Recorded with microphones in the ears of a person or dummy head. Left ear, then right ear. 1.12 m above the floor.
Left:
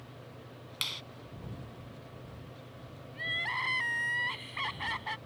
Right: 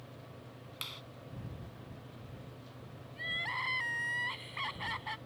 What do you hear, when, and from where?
0.8 s a clap: 20° left (ahead or behind)
3.1 s crying: 5° left (ahead or behind)